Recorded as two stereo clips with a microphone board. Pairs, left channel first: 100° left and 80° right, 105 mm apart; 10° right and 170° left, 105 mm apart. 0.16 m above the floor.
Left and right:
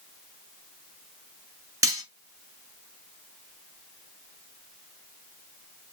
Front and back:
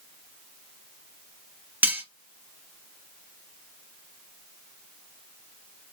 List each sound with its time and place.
1.8 s cutlery clinking: 125° right, 1.3 m